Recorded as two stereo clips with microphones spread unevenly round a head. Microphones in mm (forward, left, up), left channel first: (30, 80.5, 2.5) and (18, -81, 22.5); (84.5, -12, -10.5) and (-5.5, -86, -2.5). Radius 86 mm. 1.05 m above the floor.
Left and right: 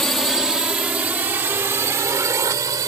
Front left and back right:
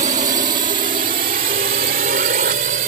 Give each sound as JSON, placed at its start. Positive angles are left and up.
{"t": 0.0, "sound": "a drone", "azimuth_deg": 170}